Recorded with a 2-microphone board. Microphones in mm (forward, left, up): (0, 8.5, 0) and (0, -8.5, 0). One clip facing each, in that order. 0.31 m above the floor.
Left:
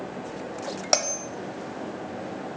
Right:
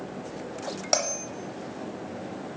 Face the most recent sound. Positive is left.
turn(degrees=15)  # may be behind; listen again after turning